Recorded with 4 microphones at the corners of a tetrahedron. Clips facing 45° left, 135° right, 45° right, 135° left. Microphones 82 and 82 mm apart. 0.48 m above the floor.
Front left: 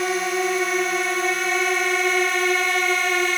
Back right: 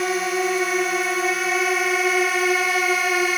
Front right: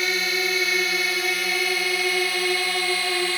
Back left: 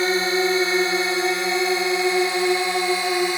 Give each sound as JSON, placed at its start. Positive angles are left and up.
{"t": 0.0, "sound": "a drone", "azimuth_deg": 135}